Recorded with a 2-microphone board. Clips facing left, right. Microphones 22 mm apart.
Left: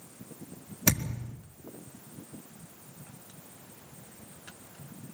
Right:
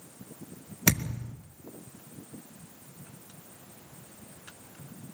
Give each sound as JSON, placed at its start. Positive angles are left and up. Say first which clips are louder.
{"t": 0.9, "sound": "a thud", "louder": "right 2 dB", "side_deg": -25, "distance_m": 4.0}